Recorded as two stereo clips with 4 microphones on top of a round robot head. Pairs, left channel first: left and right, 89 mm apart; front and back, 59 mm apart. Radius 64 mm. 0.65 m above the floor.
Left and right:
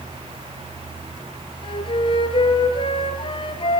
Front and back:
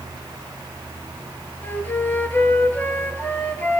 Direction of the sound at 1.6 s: 65° left.